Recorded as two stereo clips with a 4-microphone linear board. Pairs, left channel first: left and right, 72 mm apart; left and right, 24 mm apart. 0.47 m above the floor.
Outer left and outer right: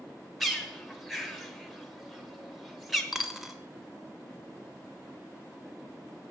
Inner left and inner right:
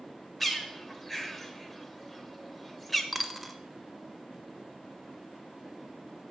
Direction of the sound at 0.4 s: Centre (ahead or behind).